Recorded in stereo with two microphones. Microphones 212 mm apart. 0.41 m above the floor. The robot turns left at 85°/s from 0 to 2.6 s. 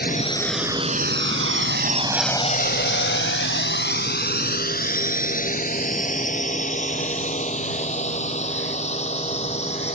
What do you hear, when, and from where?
0.0 s a drone: 50° left (ahead or behind); by 10.0 s 30° left (ahead or behind)